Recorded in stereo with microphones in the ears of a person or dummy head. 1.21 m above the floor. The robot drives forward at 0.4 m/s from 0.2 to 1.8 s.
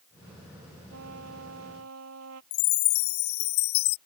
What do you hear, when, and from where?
0.9 s a trumpet: 85° right
2.5 s a chime: 80° left